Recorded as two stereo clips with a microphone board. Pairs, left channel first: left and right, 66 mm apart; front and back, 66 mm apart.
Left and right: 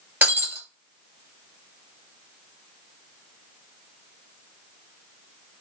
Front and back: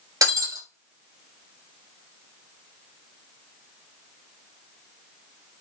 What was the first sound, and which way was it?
Breaking glass, 155° right.